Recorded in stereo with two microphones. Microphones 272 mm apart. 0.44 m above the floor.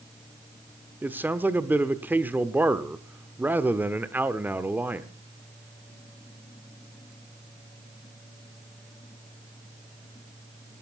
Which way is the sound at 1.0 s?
5° right (ahead or behind).